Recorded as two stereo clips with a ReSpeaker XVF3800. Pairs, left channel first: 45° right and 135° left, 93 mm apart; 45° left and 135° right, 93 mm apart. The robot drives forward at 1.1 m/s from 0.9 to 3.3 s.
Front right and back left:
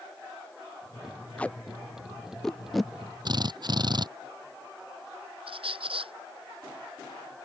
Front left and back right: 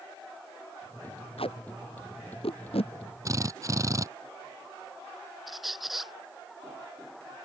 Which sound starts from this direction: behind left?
A squeak, at 5.5 s.